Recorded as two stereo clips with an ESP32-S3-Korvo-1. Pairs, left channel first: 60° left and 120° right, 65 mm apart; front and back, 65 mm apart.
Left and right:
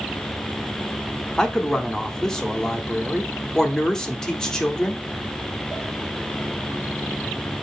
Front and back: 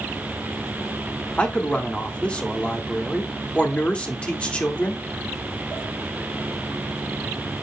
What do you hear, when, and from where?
1.4 s a man speaking: straight ahead, 1.1 m